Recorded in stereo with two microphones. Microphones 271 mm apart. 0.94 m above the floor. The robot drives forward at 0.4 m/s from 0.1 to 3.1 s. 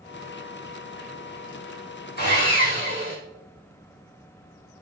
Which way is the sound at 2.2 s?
40° left (ahead or behind).